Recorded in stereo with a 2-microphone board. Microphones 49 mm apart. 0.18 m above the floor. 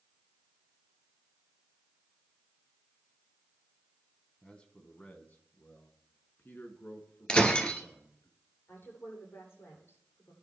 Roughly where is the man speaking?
Centre.